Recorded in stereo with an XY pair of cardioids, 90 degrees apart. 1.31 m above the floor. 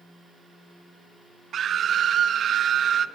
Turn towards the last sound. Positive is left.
turn(degrees=-60)